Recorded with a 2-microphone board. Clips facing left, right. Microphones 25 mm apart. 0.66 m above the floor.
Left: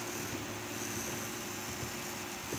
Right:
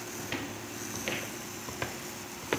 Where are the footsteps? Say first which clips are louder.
Right 3 dB; 55° right (ahead or behind); by 2.6 s 65° right (ahead or behind).